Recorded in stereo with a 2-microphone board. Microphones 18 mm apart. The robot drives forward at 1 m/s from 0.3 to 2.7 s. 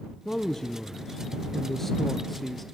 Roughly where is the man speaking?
Left.